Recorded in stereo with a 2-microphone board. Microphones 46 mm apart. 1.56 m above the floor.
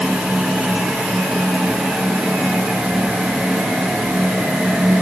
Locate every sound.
Only background noise.